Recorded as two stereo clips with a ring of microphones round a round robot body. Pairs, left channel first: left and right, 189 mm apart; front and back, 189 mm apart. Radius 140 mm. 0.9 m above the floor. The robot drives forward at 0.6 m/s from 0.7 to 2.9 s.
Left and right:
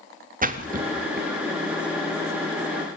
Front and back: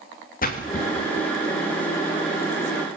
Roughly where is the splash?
Ahead right.